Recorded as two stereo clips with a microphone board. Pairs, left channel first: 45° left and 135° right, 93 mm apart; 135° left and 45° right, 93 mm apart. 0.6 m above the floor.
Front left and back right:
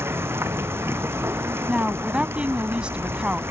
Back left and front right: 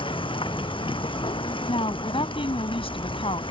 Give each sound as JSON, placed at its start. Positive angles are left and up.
{"t": 0.0, "sound": "running water", "azimuth_deg": 160}
{"t": 1.7, "sound": "a woman speaking", "azimuth_deg": 145}